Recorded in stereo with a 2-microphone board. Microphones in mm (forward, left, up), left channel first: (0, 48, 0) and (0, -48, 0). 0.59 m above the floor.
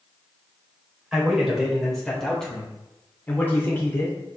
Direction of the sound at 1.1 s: 5° right (ahead or behind).